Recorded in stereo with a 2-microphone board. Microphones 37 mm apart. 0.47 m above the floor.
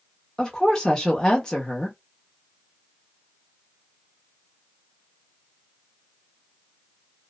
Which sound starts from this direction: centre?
A woman speaking, at 0.4 s.